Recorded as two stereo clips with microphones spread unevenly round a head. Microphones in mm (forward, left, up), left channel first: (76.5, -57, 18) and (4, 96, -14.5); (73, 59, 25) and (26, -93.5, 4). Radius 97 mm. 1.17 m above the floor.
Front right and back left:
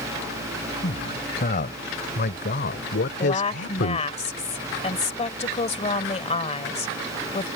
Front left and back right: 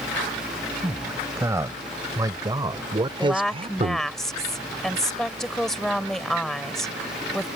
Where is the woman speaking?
15° right.